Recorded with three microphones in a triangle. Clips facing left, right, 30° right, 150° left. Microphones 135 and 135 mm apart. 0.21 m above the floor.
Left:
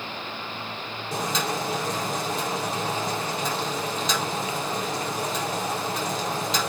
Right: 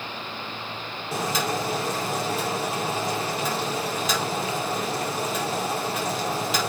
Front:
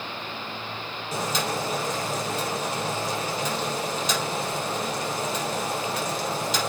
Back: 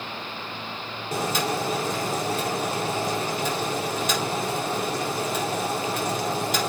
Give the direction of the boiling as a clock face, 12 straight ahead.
6 o'clock.